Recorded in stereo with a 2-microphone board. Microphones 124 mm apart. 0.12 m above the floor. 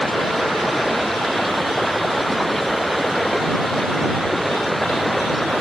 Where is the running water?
Centre (ahead or behind).